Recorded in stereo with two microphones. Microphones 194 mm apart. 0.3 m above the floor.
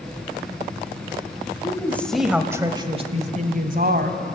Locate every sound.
1.6 s a woman speaking: 20° left (ahead or behind), 1.6 m; by 4.2 s 55° right (ahead or behind), 2 m